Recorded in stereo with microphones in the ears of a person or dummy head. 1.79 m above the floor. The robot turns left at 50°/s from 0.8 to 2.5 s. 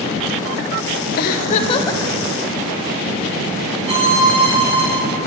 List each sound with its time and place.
1.2 s a giggle: 60° left, 0.6 m; by 2.0 s 15° left, 0.6 m
3.9 s a violin: 30° right (ahead or behind), 1.1 m